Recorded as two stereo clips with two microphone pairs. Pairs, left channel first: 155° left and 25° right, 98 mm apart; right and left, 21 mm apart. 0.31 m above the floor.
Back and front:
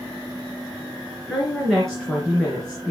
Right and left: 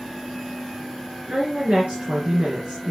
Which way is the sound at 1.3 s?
70° left.